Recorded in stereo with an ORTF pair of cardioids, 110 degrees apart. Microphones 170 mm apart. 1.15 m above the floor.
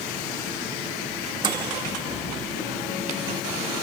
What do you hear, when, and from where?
1.4 s a microwave: 25° right, 1.2 m